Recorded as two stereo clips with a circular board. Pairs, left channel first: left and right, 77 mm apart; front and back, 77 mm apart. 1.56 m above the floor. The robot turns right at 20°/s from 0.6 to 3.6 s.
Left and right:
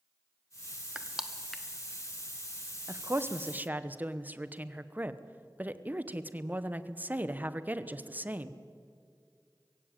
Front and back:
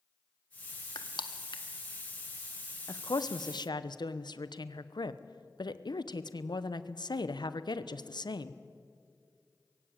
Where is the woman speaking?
35° right, 1.0 m; by 8.6 s 20° right, 1.0 m.